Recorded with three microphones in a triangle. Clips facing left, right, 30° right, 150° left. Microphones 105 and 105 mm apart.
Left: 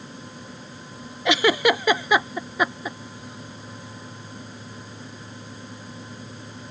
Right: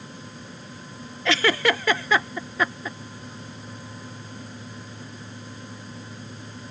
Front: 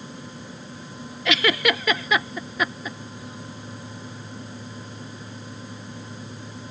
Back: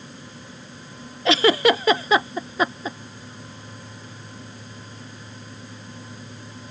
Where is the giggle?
150° left.